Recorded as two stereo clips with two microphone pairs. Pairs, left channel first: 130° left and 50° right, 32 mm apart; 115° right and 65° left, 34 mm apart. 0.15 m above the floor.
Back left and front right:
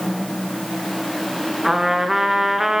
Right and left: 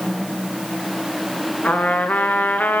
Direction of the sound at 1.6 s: 130° right.